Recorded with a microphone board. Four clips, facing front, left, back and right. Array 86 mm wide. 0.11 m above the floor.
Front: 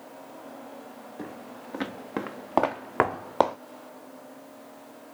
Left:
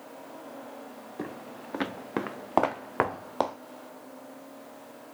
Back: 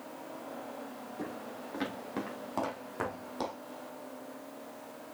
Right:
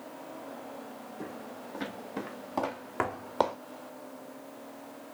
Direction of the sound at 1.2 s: 80° left.